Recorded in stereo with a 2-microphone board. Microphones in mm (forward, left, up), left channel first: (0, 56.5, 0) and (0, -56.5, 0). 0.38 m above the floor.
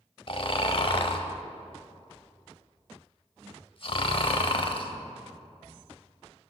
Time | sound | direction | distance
0.3 | snoring | 50° left (ahead or behind) | 0.8 m